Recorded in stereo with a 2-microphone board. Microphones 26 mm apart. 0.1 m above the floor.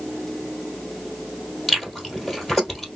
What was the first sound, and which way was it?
Chewing, 5° left (ahead or behind).